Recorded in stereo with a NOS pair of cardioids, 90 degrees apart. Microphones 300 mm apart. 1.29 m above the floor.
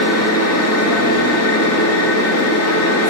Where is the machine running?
55° left, 2 m.